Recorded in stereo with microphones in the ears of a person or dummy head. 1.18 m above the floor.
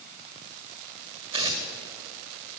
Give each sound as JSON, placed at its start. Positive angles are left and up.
{"t": 1.3, "sound": "tearing paper", "side_deg": -30, "distance_m": 1.7}